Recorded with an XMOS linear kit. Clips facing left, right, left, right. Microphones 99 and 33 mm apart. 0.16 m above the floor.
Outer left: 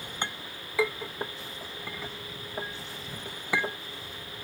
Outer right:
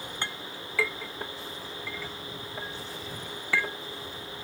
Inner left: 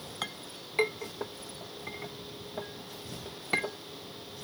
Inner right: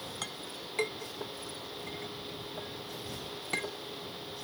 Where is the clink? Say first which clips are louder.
Outer left 3 dB, inner left 1 dB; 15° left (ahead or behind).